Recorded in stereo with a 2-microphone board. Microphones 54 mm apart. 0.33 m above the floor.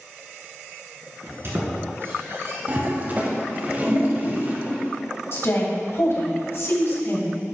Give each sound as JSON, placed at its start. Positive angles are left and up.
{"t": 1.2, "sound": "a squeak", "side_deg": -55, "distance_m": 1.9}
{"t": 2.7, "sound": "a toilet flushing", "side_deg": -35, "distance_m": 1.1}
{"t": 5.3, "sound": "a woman speaking", "side_deg": 55, "distance_m": 1.7}